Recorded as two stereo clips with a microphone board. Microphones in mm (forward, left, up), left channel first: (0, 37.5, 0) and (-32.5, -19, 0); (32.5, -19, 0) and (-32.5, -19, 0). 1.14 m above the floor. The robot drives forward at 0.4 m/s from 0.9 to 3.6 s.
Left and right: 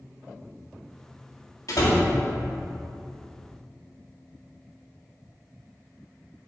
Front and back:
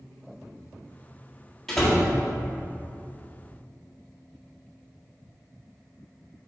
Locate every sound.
1.7 s a door slam: 85° left, 1.6 m; by 2.0 s 95° left, 1.6 m